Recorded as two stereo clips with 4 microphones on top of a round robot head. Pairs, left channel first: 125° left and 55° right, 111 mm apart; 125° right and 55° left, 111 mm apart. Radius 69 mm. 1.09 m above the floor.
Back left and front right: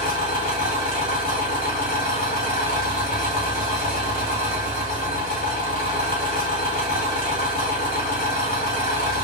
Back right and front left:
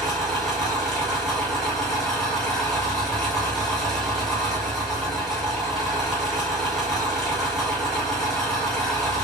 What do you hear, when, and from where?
0.0 s an engine running: 140° left, 1.4 m